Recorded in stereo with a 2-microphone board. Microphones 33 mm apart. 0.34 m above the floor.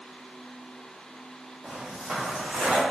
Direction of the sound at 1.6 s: 15° right (ahead or behind).